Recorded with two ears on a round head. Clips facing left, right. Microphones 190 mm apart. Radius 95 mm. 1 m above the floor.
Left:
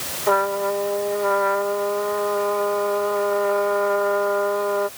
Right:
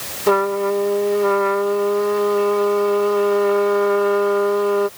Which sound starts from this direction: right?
A trumpet, at 0.3 s.